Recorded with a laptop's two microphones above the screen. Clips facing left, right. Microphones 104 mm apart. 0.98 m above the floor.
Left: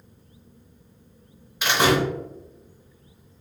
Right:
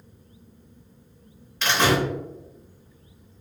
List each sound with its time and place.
1.6 s a door slam: 10° left (ahead or behind), 0.7 m